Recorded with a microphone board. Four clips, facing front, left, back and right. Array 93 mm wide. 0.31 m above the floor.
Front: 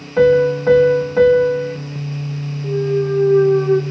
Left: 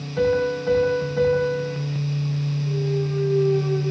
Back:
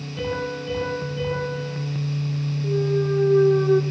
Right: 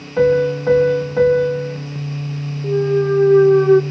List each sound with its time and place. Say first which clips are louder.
0.2 s a piano: right 6 dB, front 16 dB; 25° right, 6.5 m
2.6 s a clunk: right 12 dB, front 5 dB; 85° right, 1.4 m